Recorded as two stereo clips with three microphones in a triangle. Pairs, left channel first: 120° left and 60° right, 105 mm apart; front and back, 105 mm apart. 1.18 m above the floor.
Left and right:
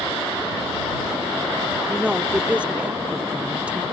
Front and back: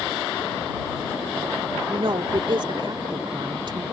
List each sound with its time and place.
1.9 s a woman speaking: 140° right